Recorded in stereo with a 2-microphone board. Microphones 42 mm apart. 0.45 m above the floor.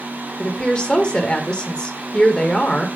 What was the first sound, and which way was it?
A woman speaking, 25° left (ahead or behind).